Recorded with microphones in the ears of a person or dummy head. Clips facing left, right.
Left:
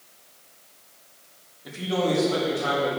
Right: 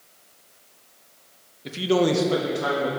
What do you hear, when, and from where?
1.6 s a man speaking: 30° right (ahead or behind), 0.8 m; by 2.9 s 65° right (ahead or behind), 1.7 m